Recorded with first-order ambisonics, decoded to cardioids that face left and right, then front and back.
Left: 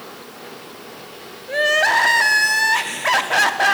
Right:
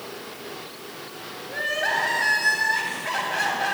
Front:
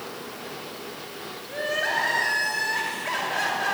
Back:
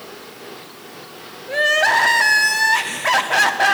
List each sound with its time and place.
1.5 s crying: 135° left, 0.9 m